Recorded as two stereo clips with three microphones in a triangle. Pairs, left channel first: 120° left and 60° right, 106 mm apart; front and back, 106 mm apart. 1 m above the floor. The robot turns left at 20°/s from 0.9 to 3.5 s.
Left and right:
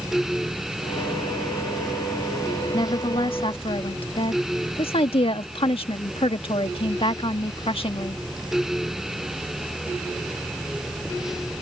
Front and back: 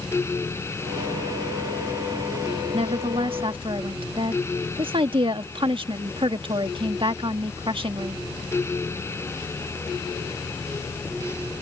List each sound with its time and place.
2.7 s a woman speaking: 160° left; by 8.2 s 145° left